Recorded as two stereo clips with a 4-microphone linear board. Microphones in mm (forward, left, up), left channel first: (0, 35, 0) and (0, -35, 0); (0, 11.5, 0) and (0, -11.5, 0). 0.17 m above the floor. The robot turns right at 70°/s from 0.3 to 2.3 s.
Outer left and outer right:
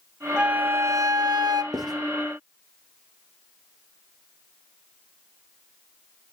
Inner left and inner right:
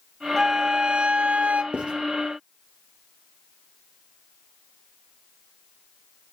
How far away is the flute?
About 0.6 m.